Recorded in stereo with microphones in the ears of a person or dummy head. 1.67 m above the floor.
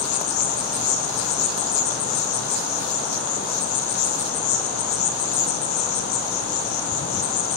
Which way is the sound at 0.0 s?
80° left.